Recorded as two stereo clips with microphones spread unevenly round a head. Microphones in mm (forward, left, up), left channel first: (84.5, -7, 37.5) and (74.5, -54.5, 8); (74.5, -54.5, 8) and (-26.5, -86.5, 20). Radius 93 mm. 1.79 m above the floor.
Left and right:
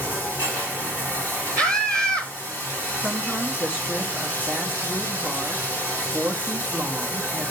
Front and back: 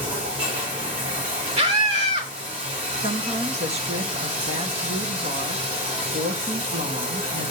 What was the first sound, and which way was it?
Running water, 160° left.